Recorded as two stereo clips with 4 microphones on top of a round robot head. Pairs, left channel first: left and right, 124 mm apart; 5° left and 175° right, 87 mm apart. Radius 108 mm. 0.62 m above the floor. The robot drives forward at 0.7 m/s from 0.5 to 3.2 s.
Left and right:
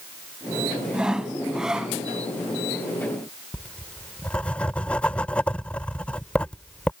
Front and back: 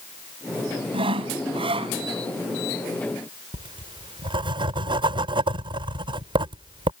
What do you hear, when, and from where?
0.9 s sawing: 175° right
3.5 s writing: 170° left